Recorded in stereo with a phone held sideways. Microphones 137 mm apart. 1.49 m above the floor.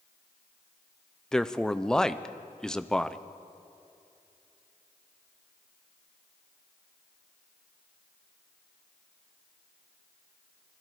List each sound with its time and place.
1.3 s a man speaking: 5° left (ahead or behind), 0.7 m